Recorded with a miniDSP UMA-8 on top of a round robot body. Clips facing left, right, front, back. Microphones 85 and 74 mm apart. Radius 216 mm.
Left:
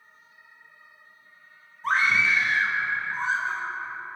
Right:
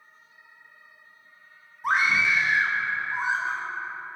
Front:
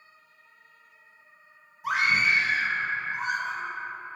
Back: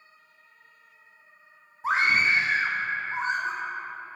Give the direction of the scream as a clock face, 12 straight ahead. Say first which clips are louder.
Even, back 1 dB; 5 o'clock.